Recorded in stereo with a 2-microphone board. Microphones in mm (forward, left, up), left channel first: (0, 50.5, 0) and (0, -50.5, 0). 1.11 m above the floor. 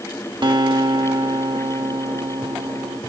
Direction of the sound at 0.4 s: 50° right (ahead or behind).